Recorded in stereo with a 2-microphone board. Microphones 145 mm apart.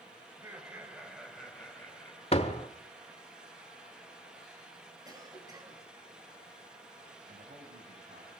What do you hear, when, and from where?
0.3 s laughter: 20° right (ahead or behind), 3 m; by 2.2 s 20° left (ahead or behind), 3.5 m
2.3 s a door slam: 45° left (ahead or behind), 1.9 m
5.0 s a cough: 30° right (ahead or behind), 5 m
7.3 s a man speaking: 80° right, 4.5 m